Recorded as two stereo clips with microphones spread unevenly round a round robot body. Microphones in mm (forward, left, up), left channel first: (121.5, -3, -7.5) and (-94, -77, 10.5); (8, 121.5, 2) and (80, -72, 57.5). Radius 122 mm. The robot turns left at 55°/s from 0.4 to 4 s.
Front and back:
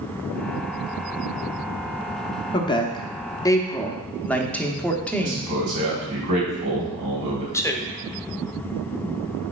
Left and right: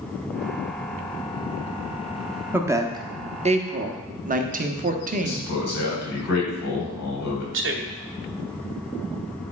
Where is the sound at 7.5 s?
50° right, 1.3 m.